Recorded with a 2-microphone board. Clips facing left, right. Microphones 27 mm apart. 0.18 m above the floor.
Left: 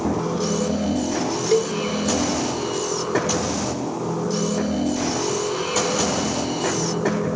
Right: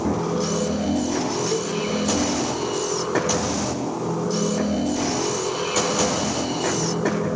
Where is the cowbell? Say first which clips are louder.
Left 5 dB; 45° left (ahead or behind).